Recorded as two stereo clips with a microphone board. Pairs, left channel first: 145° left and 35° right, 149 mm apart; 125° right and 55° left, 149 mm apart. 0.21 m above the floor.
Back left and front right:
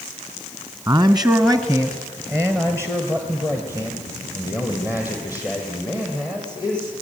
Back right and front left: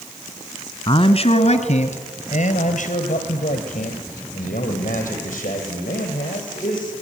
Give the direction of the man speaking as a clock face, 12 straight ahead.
3 o'clock.